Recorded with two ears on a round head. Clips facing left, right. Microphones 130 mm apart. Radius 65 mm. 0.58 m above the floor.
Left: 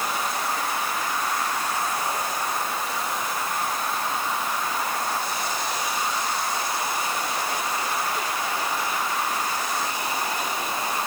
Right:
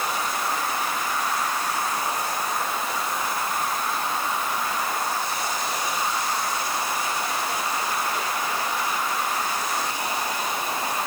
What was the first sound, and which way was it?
Only background noise.